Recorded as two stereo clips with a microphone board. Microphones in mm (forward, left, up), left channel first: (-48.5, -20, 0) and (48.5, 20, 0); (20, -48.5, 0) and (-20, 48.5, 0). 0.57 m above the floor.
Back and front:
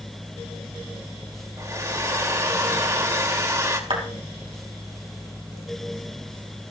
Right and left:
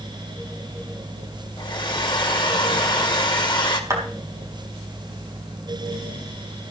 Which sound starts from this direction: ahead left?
A clap, at 3.9 s.